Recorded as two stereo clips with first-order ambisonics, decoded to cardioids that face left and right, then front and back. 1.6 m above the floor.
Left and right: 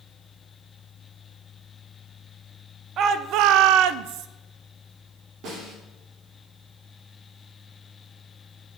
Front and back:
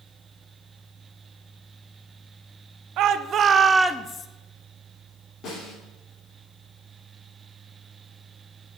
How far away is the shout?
About 0.8 m.